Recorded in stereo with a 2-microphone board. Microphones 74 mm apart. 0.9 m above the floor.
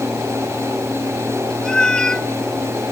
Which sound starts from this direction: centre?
A cat meowing, at 1.6 s.